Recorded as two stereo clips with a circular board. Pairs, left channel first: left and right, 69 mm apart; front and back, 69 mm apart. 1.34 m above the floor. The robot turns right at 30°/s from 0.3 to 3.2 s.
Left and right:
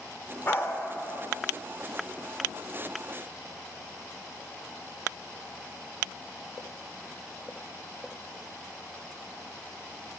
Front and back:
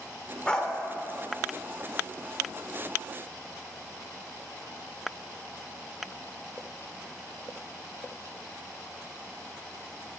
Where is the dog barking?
65° left, 1.2 m; by 0.8 s 75° left, 1.2 m.